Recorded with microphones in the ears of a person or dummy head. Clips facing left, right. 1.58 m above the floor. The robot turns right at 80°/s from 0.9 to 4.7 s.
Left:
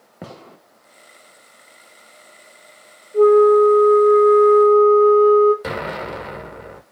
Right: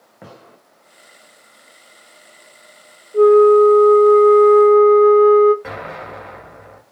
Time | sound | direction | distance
0.2 | a gunshot | 55° left (ahead or behind) | 1.2 m
3.1 | a flute | 150° right | 1.0 m
5.6 | an explosion | 50° left (ahead or behind) | 0.7 m